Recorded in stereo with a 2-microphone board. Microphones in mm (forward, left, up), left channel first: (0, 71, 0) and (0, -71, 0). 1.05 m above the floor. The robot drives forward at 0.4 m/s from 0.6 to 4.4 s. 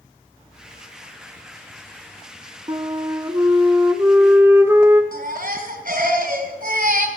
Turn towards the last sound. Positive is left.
turn(degrees=-75)  # may be behind; listen again after turning